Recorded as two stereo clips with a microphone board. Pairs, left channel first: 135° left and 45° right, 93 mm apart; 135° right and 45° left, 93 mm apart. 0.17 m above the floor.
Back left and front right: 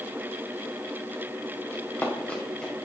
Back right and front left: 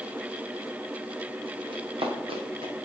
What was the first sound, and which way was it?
Running footsteps, 70° left.